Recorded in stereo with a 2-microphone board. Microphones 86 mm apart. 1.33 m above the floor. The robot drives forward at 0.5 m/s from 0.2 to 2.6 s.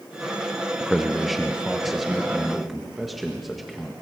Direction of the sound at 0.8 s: Centre (ahead or behind).